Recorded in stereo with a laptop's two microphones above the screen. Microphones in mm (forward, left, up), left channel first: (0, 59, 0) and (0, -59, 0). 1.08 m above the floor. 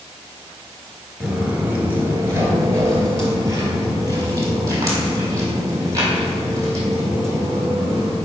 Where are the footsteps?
10° right (ahead or behind), 1.1 m; by 8.2 s 30° right (ahead or behind), 4 m.